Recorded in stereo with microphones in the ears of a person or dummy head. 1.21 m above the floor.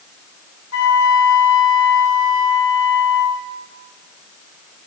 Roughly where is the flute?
Left.